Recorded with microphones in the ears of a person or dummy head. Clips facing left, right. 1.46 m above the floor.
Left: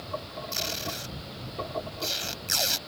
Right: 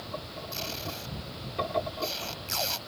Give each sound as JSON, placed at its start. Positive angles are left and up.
{"t": 0.5, "sound": "tape being pulled", "side_deg": 20}